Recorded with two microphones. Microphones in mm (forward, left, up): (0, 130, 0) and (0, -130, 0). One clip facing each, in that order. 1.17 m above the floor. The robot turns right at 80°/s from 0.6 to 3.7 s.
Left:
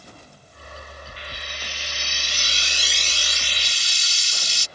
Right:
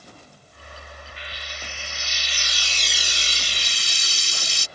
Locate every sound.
1.2 s frying: 40° left; by 4.7 s 115° right